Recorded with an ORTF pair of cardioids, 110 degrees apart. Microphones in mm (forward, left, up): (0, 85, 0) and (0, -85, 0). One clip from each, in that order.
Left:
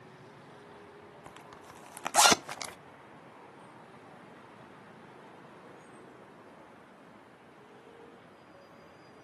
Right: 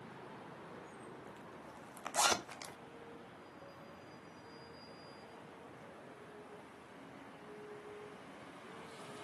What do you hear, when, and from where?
1.3 s a zipper: 50° left, 0.7 m